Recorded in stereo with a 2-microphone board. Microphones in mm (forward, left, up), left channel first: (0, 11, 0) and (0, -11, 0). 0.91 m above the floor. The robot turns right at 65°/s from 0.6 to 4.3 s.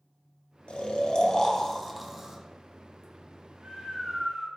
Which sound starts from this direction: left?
Snoring, at 0.7 s.